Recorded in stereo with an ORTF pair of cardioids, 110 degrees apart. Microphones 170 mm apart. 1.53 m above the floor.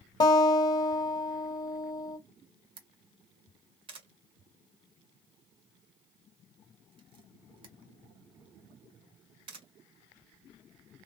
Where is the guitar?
25° left, 1.4 m.